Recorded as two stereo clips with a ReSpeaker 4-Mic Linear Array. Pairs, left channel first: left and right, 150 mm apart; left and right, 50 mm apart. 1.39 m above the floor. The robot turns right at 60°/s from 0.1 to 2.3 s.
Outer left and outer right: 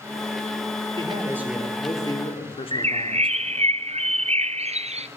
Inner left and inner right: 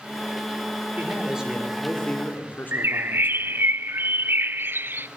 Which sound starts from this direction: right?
A bird, at 2.7 s.